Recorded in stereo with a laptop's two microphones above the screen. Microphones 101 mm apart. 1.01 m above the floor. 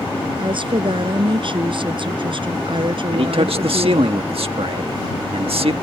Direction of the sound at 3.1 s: 65° right (ahead or behind).